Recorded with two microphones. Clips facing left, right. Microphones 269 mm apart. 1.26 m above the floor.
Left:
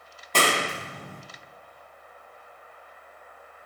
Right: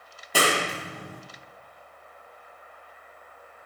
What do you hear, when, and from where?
0.3 s a clap: 10° right (ahead or behind), 1.0 m